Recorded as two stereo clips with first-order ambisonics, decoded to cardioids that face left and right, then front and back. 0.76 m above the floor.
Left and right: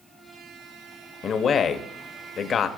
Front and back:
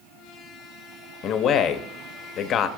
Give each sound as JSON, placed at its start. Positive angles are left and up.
{"t": 1.2, "sound": "a man speaking", "azimuth_deg": 35, "distance_m": 0.8}